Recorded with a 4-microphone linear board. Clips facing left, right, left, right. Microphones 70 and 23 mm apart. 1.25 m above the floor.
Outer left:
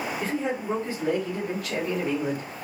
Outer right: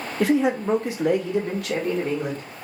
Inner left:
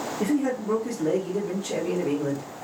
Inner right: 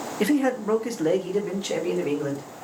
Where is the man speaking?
75° right (ahead or behind), 0.5 m; by 2.5 s 70° right (ahead or behind), 1.7 m.